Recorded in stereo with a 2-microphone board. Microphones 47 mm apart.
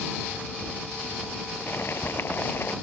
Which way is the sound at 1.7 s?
55° left (ahead or behind).